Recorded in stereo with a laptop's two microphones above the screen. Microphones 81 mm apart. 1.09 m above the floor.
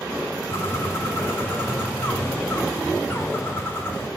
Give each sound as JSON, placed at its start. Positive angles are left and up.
{"t": 0.5, "sound": "a bird", "side_deg": 30, "distance_m": 4.5}